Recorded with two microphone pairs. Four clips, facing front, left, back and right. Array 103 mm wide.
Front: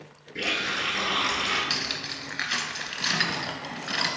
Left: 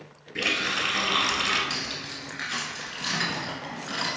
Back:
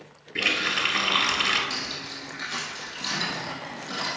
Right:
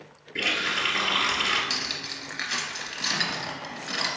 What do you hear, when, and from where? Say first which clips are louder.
0.3 s a running tap: even, back 2 dB; 165° left, 1.0 m
1.7 s cutlery clinking: even, front 1 dB; 15° right, 0.9 m